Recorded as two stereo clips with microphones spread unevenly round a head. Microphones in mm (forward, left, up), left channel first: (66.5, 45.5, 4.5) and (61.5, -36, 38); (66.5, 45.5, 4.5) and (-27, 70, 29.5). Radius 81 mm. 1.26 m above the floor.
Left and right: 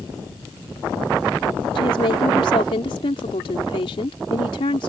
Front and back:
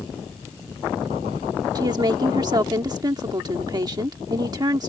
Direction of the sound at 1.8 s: 120° left.